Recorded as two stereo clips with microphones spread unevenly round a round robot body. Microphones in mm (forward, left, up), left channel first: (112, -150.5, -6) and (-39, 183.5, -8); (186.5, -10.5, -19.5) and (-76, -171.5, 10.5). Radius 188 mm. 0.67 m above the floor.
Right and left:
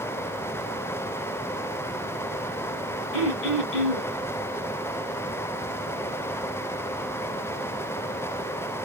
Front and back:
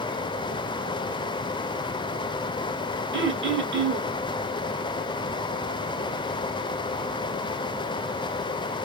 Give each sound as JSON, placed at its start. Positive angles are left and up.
{"t": 3.1, "sound": "throat clearing", "azimuth_deg": -95, "distance_m": 1.9}